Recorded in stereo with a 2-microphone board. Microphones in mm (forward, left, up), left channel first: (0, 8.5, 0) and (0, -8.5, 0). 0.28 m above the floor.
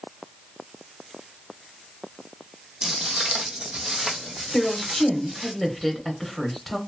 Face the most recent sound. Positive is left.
turn(degrees=10)  # may be behind; listen again after turning